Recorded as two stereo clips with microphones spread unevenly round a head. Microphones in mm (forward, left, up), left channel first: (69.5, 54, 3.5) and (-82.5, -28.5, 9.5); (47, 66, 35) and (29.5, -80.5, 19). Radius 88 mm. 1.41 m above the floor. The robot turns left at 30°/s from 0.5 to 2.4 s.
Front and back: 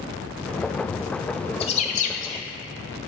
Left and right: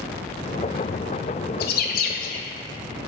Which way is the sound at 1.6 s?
85° left.